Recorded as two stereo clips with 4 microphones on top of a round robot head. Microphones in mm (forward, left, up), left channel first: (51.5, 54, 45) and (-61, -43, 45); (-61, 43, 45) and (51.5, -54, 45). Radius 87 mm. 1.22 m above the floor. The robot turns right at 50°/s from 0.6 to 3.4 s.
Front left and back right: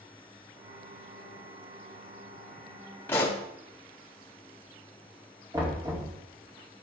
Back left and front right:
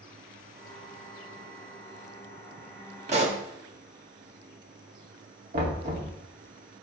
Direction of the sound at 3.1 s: 30° right.